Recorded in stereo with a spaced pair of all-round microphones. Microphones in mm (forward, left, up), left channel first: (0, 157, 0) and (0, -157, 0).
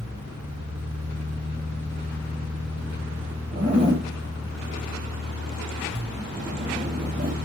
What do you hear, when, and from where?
0.0 s a fan: 10° right (ahead or behind), 1.3 m
3.5 s a zipper: 25° right (ahead or behind), 1.4 m